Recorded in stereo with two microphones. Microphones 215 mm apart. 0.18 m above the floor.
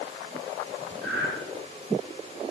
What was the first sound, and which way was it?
Breathing, 55° right (ahead or behind).